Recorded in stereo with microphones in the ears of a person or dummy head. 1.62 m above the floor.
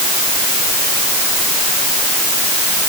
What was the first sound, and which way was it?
Only background noise.